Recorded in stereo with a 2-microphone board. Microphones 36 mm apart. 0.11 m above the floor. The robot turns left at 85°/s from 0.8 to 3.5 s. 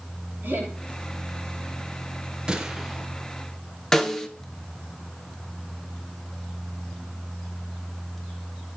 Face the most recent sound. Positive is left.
turn(degrees=20)  # may be behind; listen again after turning